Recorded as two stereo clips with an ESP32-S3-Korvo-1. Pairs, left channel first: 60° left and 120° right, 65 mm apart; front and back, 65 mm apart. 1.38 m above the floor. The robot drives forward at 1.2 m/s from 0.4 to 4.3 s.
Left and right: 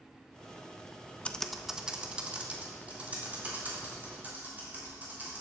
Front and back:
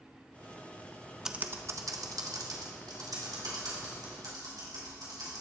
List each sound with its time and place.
1.2 s typing on a keyboard: 105° left, 0.5 m; by 5.4 s 175° left, 4 m